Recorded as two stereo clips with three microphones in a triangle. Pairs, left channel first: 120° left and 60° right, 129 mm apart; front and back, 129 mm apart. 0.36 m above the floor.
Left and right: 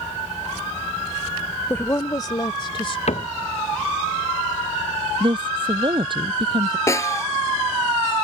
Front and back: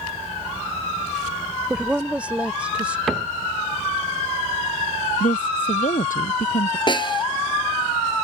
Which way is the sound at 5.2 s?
10° right.